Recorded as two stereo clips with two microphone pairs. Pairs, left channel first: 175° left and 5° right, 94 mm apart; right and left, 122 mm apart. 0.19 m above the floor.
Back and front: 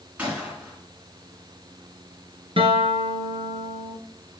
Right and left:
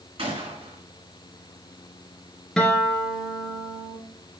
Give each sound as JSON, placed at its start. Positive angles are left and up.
{"t": 0.2, "sound": "a gunshot", "azimuth_deg": 65, "distance_m": 2.5}
{"t": 2.6, "sound": "a guitar", "azimuth_deg": -5, "distance_m": 1.4}